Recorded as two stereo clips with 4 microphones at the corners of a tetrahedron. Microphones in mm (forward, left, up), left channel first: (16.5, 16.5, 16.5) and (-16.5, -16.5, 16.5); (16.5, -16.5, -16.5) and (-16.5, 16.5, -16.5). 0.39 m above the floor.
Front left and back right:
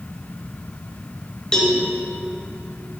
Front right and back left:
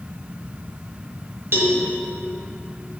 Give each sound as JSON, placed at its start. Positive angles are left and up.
{"t": 1.5, "sound": "a cowbell", "azimuth_deg": 115, "distance_m": 1.4}